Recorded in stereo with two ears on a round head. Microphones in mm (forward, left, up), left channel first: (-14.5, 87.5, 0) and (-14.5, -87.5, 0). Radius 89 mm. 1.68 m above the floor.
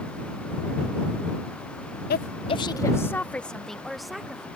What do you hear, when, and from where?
2.1 s a woman speaking: 50° left (ahead or behind); by 4.5 s 5° right (ahead or behind)